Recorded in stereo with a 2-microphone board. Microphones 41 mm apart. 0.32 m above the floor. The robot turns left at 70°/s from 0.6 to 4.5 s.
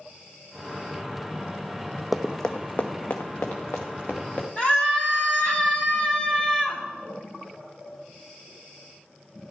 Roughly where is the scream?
Left.